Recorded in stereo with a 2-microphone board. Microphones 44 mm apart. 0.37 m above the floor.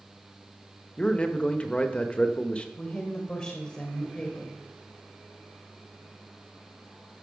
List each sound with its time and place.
1.0 s a man speaking: 25° left (ahead or behind), 1.0 m
2.8 s a woman speaking: 30° left (ahead or behind), 1.6 m